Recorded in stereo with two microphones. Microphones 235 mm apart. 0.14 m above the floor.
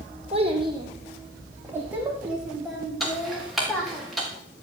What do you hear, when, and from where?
0.3 s a child speaking: 25° right (ahead or behind), 4 m; by 4.0 s 5° left (ahead or behind), 7 m
3.0 s ticking: centre (ahead or behind), 5 m